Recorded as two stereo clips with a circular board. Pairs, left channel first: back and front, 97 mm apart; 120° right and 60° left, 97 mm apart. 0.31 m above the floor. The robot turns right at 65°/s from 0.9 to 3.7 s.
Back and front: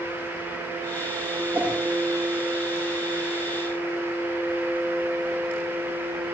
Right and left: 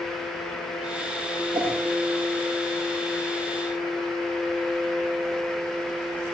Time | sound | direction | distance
1.5 | a whoosh | 65° left | 7.5 m